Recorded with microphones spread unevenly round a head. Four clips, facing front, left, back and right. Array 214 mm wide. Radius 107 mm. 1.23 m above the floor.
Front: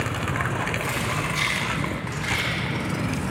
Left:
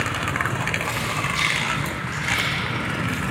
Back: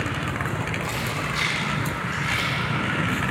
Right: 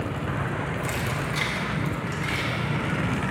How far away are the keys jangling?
About 0.8 m.